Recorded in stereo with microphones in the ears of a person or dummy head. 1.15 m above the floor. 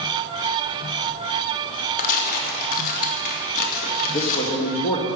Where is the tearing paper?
45° left (ahead or behind), 2.5 m.